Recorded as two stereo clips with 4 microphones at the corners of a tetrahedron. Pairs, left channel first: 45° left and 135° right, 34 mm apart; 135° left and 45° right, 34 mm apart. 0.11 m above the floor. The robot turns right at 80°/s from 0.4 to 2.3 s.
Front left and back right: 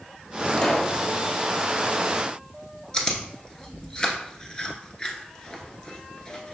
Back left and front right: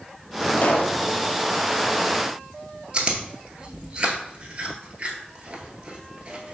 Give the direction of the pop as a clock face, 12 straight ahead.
8 o'clock.